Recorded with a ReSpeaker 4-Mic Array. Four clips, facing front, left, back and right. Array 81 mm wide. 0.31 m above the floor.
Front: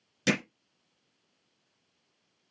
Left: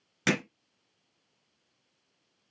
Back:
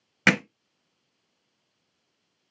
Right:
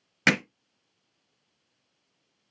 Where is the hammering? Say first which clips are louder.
Right 4 dB, back 6 dB; 160° right, 1.6 m.